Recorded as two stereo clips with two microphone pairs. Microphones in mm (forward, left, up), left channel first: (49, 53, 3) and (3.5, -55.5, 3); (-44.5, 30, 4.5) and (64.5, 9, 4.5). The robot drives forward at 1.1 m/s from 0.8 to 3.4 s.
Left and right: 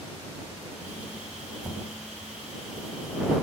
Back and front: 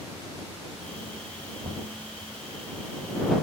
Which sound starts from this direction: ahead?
Knocking, at 1.6 s.